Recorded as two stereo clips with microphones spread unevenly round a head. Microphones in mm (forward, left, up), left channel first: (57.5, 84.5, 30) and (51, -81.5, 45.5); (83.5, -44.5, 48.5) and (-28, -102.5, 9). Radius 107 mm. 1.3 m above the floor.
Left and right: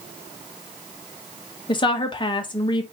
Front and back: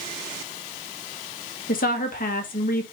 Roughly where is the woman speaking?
Ahead left.